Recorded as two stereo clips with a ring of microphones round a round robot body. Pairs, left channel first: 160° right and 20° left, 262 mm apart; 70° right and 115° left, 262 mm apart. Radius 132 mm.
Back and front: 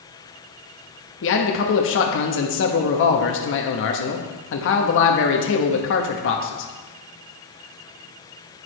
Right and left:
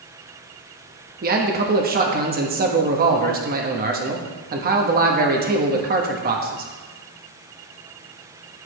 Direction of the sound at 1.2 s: 165° left.